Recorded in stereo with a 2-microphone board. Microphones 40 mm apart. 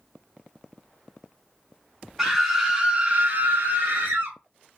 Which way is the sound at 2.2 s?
Centre (ahead or behind).